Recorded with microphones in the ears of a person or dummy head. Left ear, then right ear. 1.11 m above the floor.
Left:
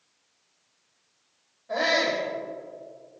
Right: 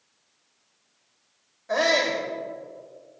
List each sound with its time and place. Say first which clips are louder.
1.7 s a shout: right 2 dB; 60° right (ahead or behind), 3 m